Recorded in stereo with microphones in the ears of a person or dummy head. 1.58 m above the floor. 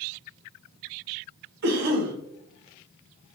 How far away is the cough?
About 1.0 m.